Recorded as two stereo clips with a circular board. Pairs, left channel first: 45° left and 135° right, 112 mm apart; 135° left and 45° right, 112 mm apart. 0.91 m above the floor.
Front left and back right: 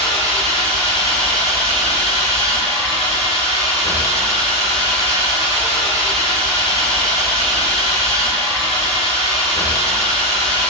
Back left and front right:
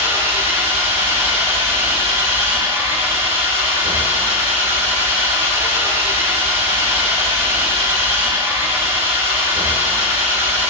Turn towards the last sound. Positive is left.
turn(degrees=20)